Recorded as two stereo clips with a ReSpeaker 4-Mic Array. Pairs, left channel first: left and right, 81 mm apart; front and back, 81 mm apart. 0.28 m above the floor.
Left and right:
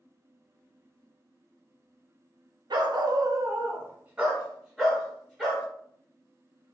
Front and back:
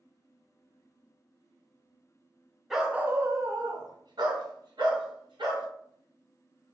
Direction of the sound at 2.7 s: 90° right.